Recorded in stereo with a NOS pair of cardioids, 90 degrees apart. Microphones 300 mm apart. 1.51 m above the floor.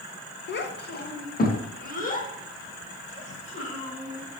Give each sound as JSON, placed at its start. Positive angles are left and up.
{"t": 0.5, "sound": "a child speaking", "azimuth_deg": 40, "distance_m": 1.1}